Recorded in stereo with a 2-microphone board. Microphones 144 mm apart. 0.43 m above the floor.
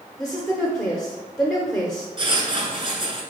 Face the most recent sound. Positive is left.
turn(degrees=-40)  # may be behind; listen again after turning